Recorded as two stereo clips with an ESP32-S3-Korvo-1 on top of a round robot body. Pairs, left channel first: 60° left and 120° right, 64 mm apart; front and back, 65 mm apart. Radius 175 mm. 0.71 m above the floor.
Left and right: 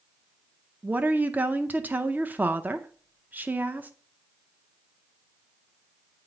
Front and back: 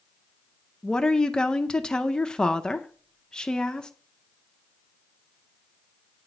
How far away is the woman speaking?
About 0.8 m.